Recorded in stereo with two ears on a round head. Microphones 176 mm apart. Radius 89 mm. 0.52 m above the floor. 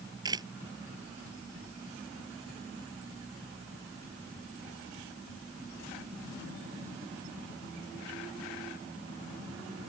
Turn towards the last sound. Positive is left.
turn(degrees=-20)  # may be behind; listen again after turning